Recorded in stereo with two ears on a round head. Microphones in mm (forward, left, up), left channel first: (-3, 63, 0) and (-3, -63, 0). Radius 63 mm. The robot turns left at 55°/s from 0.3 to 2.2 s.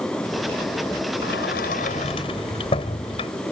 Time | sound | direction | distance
1.2 | a sliding door | 95° left | ?